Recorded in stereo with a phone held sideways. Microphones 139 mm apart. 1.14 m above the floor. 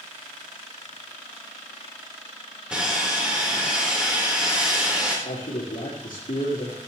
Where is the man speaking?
80° left, 3 m.